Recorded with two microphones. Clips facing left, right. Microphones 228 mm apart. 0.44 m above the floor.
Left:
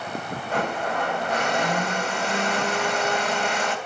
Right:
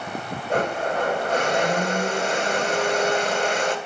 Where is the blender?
40° right (ahead or behind), 1.5 m.